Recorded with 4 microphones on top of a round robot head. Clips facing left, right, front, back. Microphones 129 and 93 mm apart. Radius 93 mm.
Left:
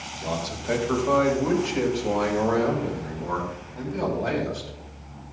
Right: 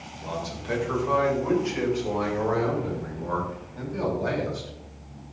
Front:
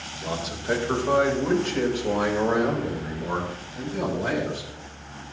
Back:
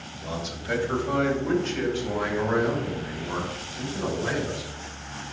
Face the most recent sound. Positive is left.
turn(degrees=15)